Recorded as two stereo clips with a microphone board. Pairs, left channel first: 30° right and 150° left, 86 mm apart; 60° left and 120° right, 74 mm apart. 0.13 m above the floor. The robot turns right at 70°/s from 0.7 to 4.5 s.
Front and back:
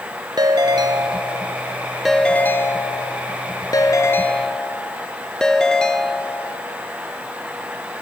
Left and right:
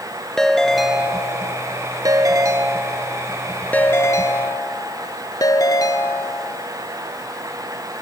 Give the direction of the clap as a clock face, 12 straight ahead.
I don't hear a clap.